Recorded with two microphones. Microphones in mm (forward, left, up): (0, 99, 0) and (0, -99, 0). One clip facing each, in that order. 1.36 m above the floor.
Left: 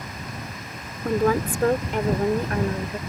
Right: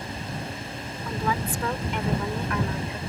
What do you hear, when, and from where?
1.1 s a woman speaking: 55° left (ahead or behind); by 3.0 s 35° left (ahead or behind)